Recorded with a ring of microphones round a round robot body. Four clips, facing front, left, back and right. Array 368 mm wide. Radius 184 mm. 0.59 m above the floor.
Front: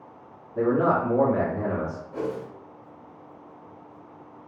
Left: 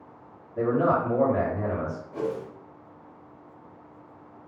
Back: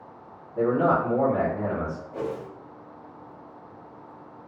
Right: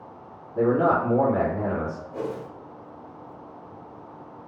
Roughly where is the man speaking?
Ahead right.